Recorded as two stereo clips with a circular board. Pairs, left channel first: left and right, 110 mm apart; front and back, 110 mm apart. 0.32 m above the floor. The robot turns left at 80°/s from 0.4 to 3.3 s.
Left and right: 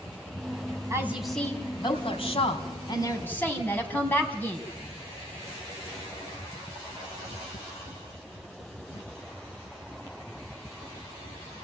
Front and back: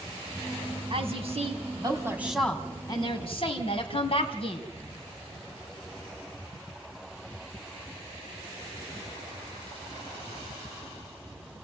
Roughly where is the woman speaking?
Behind right.